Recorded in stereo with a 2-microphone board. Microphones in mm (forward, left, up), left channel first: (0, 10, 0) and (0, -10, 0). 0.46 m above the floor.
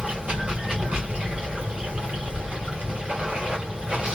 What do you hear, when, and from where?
0.0 s running water: 65° right (ahead or behind), 2.0 m